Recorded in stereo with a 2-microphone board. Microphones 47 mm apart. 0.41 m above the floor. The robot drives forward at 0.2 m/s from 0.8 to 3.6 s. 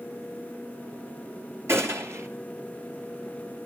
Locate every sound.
1.7 s a gunshot: 70° right (ahead or behind), 3 m; by 2.3 s 75° right (ahead or behind), 3 m